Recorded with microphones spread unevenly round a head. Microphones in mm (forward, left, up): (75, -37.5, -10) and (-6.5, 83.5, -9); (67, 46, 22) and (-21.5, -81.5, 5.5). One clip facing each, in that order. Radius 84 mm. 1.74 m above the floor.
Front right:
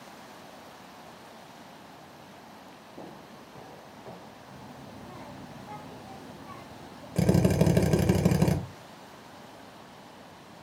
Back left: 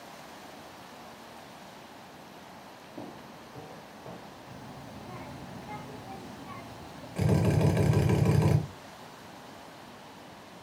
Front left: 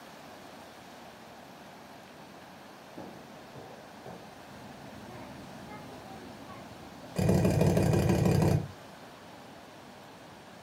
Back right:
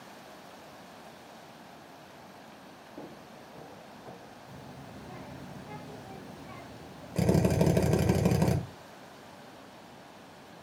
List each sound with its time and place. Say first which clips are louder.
3.0 s footsteps: back left 2 dB, even; 155° left, 1.9 m; by 4.3 s 105° left, 2.5 m
4.5 s a child speaking: even, back right 1 dB; 170° right, 0.5 m
7.2 s a drill: front right 3 dB, back right 1 dB; 65° right, 1.0 m